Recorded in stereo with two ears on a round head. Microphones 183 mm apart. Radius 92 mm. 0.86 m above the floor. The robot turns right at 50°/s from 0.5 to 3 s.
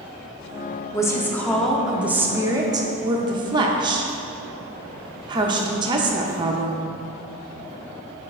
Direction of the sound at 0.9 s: 15° left (ahead or behind).